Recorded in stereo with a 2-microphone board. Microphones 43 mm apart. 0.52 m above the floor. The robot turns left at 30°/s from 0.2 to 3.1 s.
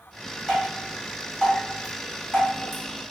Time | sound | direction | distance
0.5 | dripping | 5° left (ahead or behind) | 1.3 m